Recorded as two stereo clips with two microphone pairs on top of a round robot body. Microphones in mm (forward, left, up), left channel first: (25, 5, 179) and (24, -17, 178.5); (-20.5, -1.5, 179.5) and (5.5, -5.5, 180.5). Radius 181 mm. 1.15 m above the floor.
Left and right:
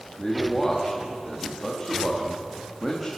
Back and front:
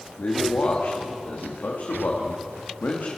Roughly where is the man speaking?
Behind.